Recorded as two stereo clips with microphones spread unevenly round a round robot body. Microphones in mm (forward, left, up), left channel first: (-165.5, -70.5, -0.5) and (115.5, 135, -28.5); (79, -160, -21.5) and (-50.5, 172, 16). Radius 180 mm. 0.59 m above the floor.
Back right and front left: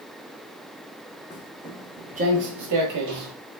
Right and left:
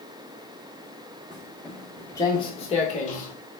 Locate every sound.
1.3 s footsteps: 170° left, 0.6 m; by 3.3 s straight ahead, 1.0 m